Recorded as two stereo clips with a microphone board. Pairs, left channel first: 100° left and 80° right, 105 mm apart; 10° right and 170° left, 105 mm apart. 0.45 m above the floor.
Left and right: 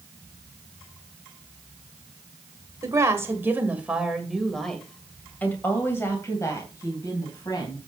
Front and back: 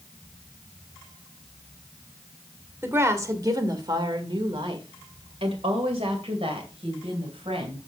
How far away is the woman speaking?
About 1.6 m.